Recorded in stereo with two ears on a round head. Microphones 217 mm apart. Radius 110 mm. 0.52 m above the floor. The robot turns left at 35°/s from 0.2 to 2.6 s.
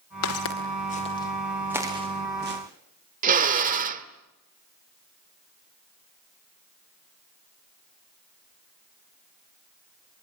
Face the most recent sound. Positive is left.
turn(degrees=-30)  # may be behind; listen again after turning